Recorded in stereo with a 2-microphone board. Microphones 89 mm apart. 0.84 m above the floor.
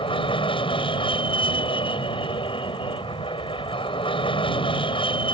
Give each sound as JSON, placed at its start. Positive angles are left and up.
{"t": 0.0, "sound": "an aircraft", "side_deg": 70}